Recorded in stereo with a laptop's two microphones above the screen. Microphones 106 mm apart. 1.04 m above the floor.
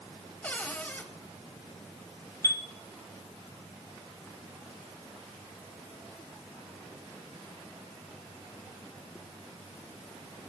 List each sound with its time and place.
0.4 s a cupboard door: 15° left (ahead or behind), 2.5 m
2.4 s a chime: 30° left (ahead or behind), 1.1 m